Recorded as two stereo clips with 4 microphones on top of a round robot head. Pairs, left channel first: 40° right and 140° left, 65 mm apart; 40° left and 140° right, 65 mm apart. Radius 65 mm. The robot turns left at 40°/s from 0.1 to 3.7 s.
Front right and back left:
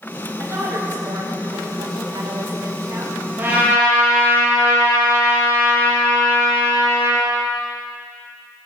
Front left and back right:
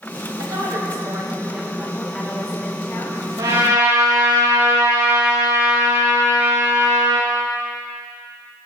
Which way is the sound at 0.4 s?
165° right.